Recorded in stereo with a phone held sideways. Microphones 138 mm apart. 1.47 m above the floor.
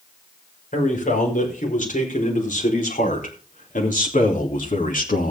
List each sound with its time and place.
0.7 s a man speaking: 70° left (ahead or behind), 5.5 m; by 5.3 s 75° left (ahead or behind), 2.5 m